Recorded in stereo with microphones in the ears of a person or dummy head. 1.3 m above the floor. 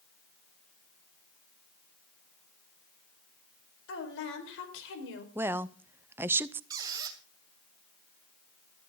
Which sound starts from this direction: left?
A woman speaking, at 3.9 s.